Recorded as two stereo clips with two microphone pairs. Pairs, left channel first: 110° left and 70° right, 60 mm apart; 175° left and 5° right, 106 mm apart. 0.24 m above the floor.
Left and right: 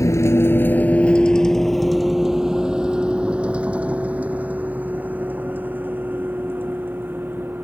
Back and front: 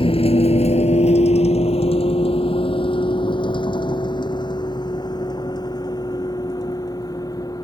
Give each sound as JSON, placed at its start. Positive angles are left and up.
{"t": 0.0, "sound": "a vehicle", "azimuth_deg": 145}